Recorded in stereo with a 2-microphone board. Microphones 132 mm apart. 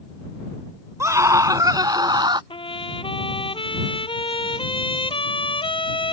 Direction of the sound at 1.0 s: 20° right (ahead or behind).